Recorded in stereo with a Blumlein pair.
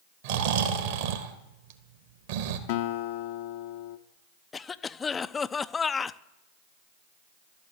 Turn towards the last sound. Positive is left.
turn(degrees=15)